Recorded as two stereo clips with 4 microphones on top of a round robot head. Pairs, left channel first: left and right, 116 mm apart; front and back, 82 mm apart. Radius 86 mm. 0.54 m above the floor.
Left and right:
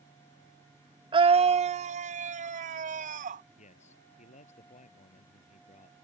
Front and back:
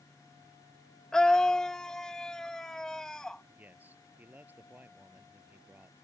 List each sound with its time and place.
1.1 s a scream: 80° right; by 3.5 s 85° right
3.6 s a man speaking: 110° left